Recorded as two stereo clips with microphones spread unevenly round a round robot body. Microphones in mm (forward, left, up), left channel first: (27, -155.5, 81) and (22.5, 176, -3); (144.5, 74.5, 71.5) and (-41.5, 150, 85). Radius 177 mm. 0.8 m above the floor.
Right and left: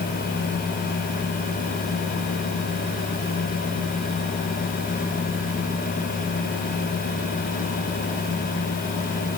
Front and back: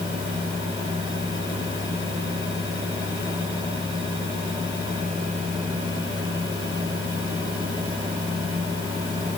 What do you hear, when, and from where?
Only background noise.